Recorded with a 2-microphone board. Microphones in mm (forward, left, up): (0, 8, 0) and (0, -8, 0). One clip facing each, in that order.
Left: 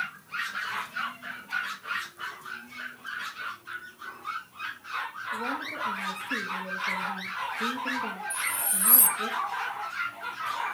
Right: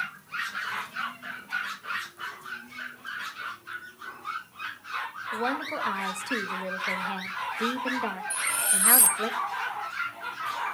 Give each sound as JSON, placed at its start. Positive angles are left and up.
{"t": 5.3, "sound": "a woman speaking", "side_deg": -75, "distance_m": 1.7}
{"t": 8.3, "sound": "cutlery clinking", "side_deg": -25, "distance_m": 0.6}